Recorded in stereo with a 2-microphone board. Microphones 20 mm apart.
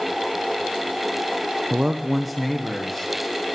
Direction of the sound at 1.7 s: 40° right (ahead or behind).